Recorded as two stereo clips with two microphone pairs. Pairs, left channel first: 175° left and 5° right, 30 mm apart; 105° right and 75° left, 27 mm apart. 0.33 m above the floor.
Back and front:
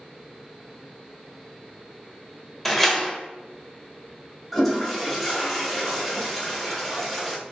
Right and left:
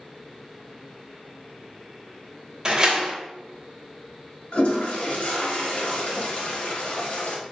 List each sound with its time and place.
2.6 s a door slam: 90° left, 0.6 m
4.5 s a toilet flushing: 100° right, 0.9 m